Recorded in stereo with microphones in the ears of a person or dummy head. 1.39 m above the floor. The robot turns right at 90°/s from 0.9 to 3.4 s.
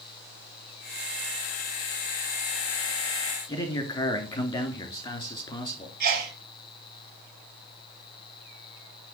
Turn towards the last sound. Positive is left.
turn(degrees=-50)  # may be behind; listen again after turning